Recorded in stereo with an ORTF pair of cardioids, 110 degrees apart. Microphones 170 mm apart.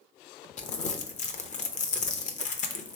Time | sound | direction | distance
0.6 | crumpling | 45° left | 0.7 m